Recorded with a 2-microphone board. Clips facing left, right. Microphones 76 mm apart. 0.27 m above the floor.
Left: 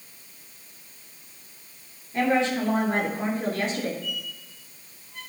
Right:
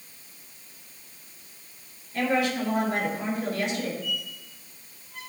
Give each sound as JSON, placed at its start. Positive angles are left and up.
{"t": 2.1, "sound": "a woman speaking", "side_deg": 25, "distance_m": 4.5}
{"t": 4.0, "sound": "a squeak", "side_deg": 0, "distance_m": 5.0}